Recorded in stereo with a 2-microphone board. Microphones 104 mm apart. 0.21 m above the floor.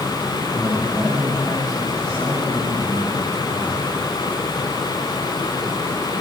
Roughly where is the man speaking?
Centre.